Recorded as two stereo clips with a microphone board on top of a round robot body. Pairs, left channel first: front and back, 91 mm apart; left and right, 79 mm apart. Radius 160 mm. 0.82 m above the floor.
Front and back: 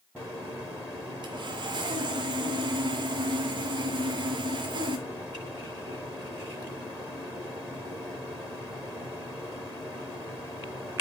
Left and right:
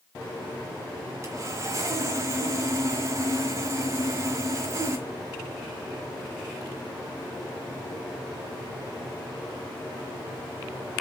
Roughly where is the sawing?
Behind right.